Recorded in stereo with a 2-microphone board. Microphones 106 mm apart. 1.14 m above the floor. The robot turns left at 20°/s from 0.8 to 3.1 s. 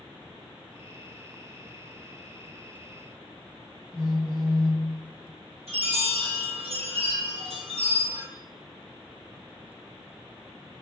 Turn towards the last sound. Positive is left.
turn(degrees=-80)